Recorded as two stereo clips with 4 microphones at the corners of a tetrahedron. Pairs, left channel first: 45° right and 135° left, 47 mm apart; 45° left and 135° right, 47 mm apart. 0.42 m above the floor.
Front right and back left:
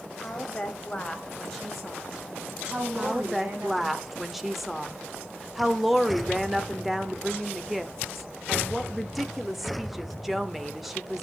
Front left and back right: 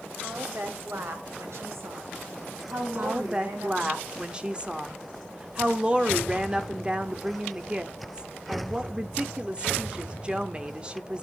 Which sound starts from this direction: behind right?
A woman speaking, at 3.0 s.